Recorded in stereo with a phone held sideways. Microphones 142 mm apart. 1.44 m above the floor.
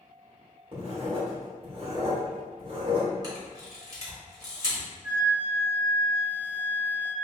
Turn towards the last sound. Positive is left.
turn(degrees=-25)  # may be behind; listen again after turning